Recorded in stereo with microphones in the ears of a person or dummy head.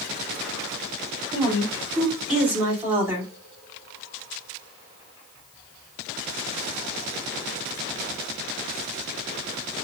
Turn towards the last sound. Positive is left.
turn(degrees=-10)  # may be behind; listen again after turning